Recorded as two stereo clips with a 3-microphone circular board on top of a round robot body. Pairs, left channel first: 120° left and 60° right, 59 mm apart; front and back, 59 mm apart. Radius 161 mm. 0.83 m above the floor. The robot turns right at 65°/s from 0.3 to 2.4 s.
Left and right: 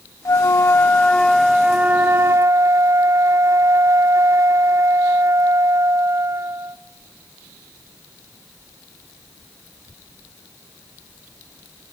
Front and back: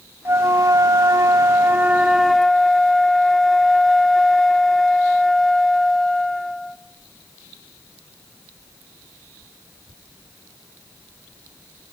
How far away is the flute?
About 0.6 m.